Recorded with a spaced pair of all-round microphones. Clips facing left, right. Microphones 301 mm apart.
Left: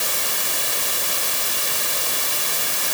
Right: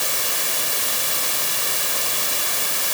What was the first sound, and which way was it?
Only background noise.